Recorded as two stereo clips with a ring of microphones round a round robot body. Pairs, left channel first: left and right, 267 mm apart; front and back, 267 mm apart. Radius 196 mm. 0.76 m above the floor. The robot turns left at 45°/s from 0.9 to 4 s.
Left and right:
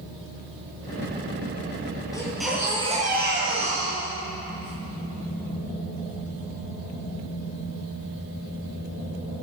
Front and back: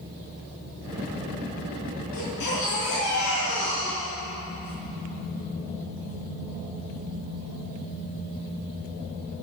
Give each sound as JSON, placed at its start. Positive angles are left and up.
{"t": 2.1, "sound": "a baby crying", "azimuth_deg": 15, "distance_m": 9.5}